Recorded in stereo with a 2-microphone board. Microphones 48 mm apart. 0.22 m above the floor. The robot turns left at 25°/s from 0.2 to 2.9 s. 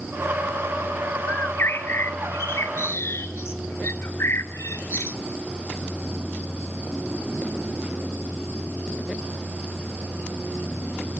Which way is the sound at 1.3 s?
125° left.